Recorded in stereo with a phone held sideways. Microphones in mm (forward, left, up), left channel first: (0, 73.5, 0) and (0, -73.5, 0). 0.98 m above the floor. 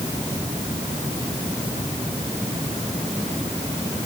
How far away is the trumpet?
I don't hear a trumpet.